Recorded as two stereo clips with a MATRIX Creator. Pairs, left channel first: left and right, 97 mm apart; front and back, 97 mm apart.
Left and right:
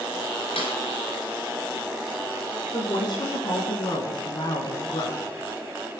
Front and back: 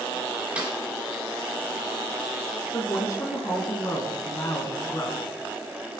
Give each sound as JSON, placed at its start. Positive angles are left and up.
{"t": 0.6, "sound": "a snare drum", "azimuth_deg": 105, "distance_m": 3.0}
{"t": 2.7, "sound": "a woman speaking", "azimuth_deg": 55, "distance_m": 3.0}